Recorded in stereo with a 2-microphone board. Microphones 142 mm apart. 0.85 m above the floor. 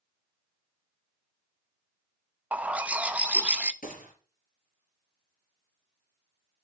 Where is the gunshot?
85° left, 4.5 m.